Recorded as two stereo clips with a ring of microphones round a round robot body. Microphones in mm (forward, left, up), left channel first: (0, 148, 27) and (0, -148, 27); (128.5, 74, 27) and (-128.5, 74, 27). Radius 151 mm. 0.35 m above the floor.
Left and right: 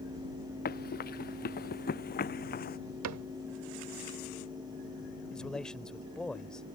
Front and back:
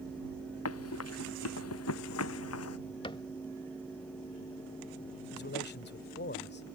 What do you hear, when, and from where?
0.7 s running footsteps: 30° left
3.0 s a cupboard door: 70° right
5.3 s a man speaking: 5° left